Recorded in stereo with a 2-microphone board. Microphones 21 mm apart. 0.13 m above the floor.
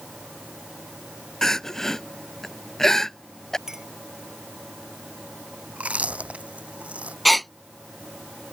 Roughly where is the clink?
Right.